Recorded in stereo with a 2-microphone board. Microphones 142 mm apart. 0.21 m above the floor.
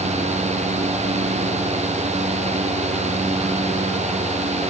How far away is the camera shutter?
No camera shutter in this recording.